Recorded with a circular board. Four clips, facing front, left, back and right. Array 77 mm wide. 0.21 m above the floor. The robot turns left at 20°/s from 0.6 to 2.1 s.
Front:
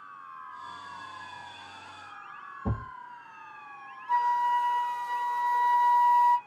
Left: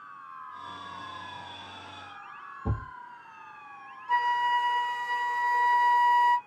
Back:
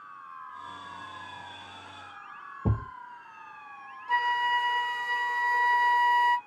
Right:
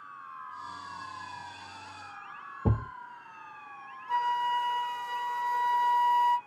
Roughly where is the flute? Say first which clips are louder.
Left 3 dB, front 2 dB; behind.